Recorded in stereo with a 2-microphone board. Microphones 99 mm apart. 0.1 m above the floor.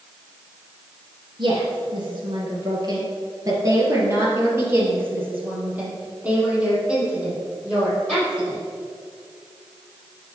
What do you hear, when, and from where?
1.4 s a woman speaking: 50° right (ahead or behind), 2.0 m; by 8.6 s 5° right (ahead or behind), 4 m